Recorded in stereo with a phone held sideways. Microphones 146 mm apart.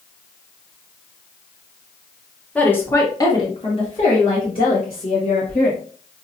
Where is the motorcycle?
No motorcycle in this recording.